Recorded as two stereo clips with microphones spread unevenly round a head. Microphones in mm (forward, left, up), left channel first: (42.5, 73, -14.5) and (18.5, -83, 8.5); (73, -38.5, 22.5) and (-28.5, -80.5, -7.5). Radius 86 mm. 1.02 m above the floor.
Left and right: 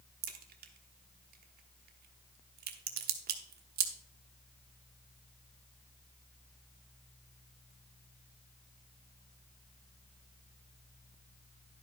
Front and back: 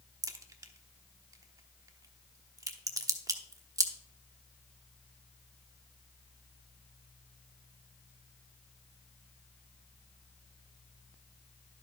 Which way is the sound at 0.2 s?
95° right.